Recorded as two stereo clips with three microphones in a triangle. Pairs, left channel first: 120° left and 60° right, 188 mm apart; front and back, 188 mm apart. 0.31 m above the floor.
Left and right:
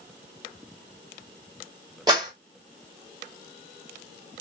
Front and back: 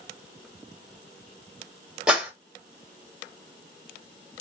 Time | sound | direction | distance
2.1 | a clap | 100° right | 1.2 m